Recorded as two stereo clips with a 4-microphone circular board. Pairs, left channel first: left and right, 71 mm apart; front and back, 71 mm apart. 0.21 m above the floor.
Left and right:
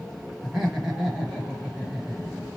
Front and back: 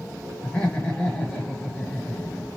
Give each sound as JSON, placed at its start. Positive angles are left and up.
{"t": 0.4, "sound": "laughter", "azimuth_deg": -25, "distance_m": 1.0}